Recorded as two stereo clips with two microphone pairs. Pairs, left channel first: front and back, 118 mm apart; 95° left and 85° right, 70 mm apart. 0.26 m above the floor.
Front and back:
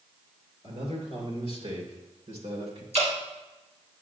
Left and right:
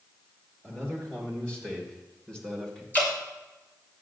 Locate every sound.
0.6 s a man speaking: 170° left, 4.5 m; by 2.8 s straight behind, 2.5 m
2.9 s dripping: 160° left, 3.5 m